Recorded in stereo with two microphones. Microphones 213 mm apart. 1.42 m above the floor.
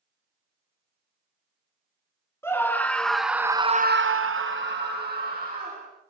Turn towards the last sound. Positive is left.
turn(degrees=-40)  # may be behind; listen again after turning